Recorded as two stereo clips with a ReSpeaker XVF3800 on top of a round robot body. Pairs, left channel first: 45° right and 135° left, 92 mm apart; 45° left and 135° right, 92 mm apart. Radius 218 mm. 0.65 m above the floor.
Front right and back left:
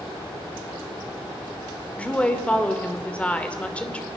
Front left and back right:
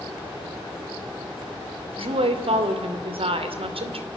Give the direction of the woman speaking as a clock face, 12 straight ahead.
4 o'clock.